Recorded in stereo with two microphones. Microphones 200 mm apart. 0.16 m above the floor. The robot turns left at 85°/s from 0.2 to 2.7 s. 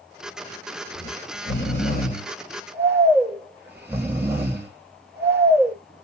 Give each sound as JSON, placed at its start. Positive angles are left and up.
{"t": 0.9, "sound": "snoring", "azimuth_deg": 140, "distance_m": 8.0}